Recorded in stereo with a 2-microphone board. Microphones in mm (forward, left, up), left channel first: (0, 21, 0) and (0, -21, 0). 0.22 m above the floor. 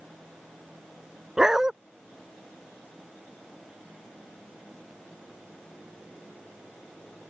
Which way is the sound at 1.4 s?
10° right (ahead or behind).